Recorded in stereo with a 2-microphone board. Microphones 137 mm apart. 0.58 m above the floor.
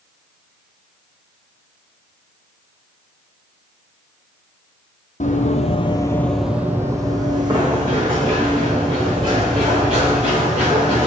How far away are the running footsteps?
About 1.2 m.